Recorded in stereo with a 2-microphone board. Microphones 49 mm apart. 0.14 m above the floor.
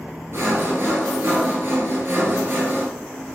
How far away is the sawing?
About 1.4 m.